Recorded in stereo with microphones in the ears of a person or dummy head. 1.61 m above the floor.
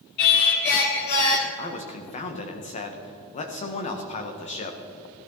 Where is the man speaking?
40° left (ahead or behind), 1.6 m.